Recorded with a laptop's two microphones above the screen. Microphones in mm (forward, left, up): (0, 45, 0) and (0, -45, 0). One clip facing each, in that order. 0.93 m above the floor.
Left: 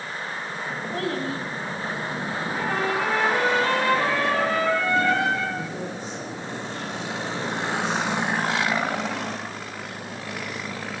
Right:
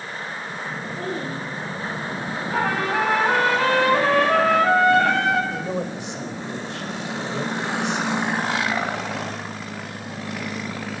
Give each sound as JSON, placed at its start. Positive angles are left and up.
{"t": 0.9, "sound": "a child speaking", "side_deg": 85, "distance_m": 5.0}
{"t": 2.5, "sound": "a trumpet", "side_deg": -80, "distance_m": 8.0}
{"t": 5.5, "sound": "a man speaking", "side_deg": -80, "distance_m": 5.5}